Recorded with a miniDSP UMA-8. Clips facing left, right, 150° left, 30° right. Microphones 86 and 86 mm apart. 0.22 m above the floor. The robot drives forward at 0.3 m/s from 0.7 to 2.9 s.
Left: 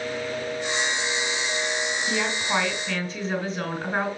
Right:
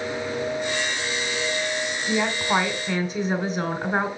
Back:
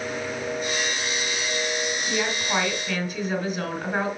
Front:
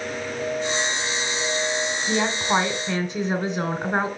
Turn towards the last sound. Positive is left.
turn(degrees=-60)